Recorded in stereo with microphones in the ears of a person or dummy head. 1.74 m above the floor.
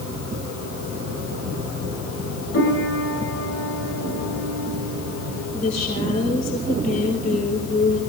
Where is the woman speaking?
45° left (ahead or behind), 6 m.